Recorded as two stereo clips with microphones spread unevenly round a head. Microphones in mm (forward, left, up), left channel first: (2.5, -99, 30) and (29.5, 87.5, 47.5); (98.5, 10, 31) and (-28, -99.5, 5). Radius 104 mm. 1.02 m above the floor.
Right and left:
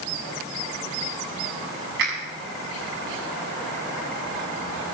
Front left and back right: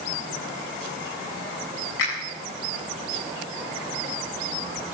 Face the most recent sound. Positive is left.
turn(degrees=55)